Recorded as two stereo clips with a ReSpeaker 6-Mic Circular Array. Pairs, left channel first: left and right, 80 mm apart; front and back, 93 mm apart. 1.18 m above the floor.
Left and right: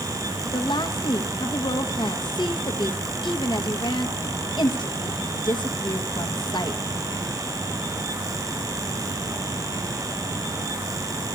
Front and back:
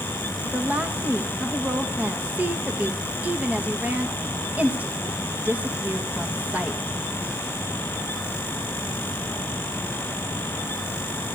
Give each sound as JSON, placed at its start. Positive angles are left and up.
{"t": 0.5, "sound": "a woman speaking", "azimuth_deg": 105, "distance_m": 1.0}